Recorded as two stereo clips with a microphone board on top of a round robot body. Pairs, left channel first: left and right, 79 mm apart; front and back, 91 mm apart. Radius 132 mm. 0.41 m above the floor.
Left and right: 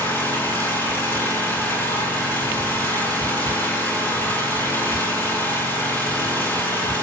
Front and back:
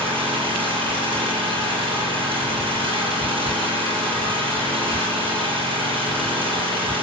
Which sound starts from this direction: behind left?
An engine running, at 0.0 s.